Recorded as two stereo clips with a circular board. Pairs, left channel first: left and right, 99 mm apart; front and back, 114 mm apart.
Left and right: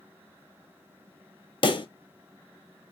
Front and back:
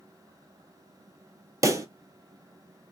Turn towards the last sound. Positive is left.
turn(degrees=120)